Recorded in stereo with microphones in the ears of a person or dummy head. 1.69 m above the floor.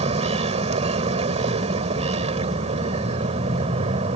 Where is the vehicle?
35° right (ahead or behind).